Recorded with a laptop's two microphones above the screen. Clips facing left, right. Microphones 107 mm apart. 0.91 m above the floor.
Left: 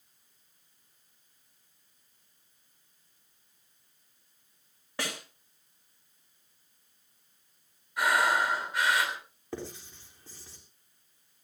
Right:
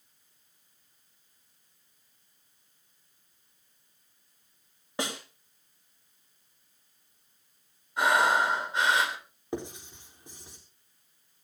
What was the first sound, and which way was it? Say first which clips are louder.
A snare drum: right 3 dB; 20° right (ahead or behind).